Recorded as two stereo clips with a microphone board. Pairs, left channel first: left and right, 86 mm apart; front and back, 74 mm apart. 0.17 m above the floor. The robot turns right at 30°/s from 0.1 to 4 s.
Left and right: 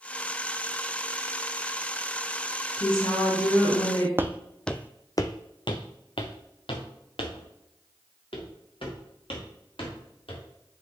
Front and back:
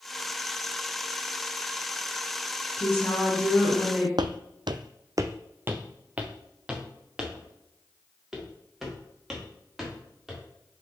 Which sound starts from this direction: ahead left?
A woman speaking, at 2.8 s.